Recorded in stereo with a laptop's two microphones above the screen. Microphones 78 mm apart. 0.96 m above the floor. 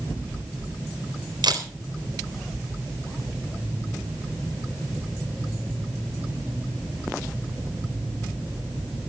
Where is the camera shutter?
75° right (ahead or behind), 4 m.